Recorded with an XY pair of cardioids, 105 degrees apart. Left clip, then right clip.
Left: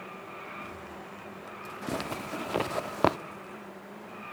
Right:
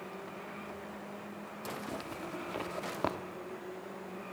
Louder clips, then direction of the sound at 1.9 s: Left 6 dB; 60° left.